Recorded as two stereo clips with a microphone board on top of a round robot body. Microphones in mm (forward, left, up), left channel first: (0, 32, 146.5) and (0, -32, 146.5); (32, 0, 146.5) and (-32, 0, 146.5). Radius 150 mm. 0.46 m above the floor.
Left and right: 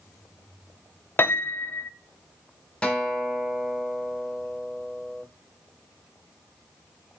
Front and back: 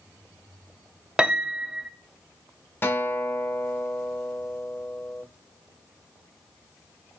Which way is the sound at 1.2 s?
115° left.